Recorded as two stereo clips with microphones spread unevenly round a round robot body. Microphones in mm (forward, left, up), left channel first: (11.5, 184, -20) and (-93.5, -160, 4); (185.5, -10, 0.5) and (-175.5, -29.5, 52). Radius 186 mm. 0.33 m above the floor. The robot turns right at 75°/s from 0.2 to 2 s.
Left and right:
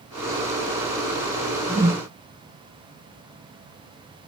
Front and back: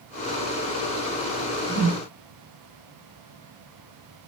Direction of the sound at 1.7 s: 145° right.